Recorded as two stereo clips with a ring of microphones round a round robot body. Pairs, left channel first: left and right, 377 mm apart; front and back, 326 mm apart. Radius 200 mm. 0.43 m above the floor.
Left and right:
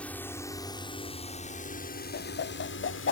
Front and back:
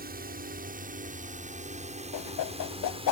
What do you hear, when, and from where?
0.0 s a drone: 170° left; by 3.1 s 115° left
2.1 s a whoosh: 30° left